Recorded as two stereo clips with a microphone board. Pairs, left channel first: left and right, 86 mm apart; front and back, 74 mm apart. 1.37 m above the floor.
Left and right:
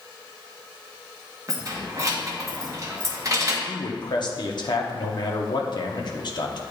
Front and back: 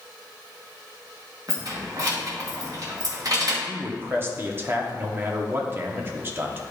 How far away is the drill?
I don't hear a drill.